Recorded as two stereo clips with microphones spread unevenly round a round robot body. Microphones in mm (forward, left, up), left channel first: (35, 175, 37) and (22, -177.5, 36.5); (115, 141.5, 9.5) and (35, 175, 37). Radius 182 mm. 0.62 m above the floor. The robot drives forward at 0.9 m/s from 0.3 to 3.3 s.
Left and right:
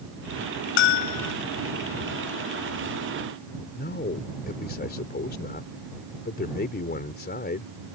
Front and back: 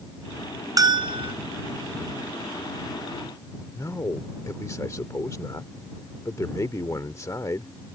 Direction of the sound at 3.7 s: 25° left.